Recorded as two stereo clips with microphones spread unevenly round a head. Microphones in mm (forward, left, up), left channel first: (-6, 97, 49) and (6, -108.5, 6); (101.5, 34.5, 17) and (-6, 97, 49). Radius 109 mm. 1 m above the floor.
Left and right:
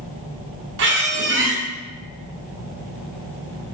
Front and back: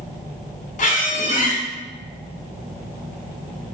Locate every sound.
0.8 s a squeak: 55° right, 0.6 m